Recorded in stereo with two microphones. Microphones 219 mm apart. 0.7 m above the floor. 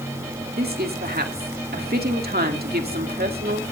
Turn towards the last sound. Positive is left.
turn(degrees=-45)  # may be behind; listen again after turning